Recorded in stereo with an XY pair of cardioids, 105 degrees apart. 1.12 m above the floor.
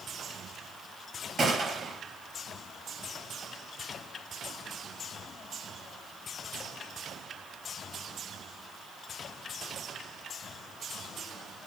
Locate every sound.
1.4 s a gunshot: 40° right, 6 m